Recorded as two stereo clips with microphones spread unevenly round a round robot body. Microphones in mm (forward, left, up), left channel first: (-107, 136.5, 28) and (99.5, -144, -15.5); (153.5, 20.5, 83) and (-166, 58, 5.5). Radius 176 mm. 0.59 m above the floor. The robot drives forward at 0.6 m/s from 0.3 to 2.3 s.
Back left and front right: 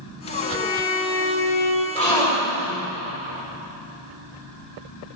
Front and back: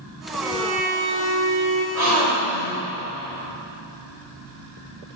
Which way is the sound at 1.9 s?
160° right.